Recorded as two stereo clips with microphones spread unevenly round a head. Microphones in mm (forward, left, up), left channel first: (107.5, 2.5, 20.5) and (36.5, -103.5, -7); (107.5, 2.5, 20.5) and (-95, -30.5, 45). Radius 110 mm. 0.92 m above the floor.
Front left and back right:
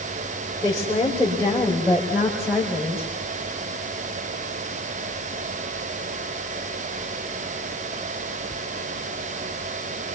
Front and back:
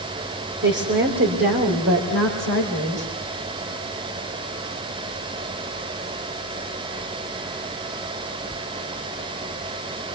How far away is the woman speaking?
About 3.5 m.